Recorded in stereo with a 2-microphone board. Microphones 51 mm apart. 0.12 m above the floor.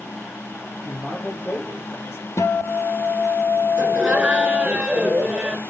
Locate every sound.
0.8 s a man speaking: 45° left (ahead or behind), 4 m
2.4 s a guitar: 65° left (ahead or behind), 1.0 m
3.8 s laughter: 15° right (ahead or behind), 1.7 m